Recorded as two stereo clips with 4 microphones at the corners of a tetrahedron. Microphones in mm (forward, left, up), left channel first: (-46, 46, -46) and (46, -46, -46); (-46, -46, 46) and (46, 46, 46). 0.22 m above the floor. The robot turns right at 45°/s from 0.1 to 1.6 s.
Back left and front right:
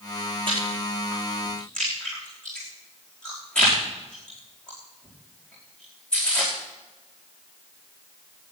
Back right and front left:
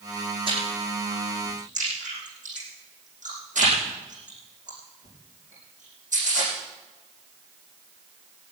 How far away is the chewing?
About 10 m.